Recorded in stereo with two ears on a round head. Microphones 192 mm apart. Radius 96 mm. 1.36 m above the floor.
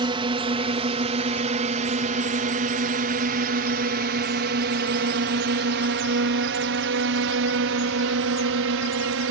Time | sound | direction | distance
0.0 | a drone | 25° right (ahead or behind) | ?